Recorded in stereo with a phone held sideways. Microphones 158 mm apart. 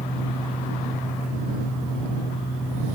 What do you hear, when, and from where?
0.0 s a fan: 75° left (ahead or behind)